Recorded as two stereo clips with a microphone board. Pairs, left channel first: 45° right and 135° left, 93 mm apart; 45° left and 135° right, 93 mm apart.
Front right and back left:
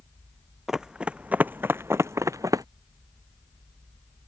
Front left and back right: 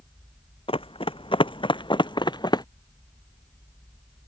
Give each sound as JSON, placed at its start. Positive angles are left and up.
{"t": 0.7, "sound": "running footsteps", "azimuth_deg": 50}